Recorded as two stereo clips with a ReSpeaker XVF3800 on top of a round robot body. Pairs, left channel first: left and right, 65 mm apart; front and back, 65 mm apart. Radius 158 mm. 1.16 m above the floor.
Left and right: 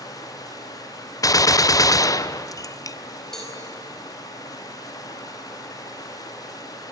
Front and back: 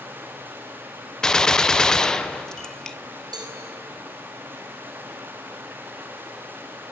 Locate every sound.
0.0 s running water: 120° left, 1.9 m
1.2 s a gunshot: 80° left, 1.1 m
3.3 s a cowbell: 175° left, 4.5 m